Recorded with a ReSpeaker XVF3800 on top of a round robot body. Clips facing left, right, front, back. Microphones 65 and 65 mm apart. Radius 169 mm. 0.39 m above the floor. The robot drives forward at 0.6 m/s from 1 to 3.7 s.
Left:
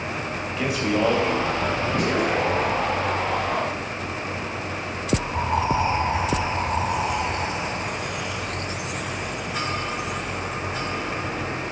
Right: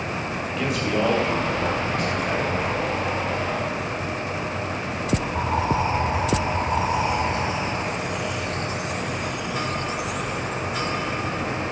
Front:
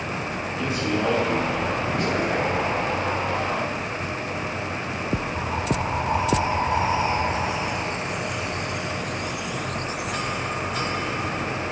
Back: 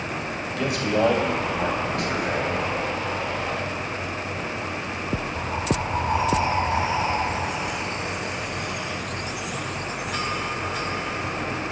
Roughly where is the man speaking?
Behind.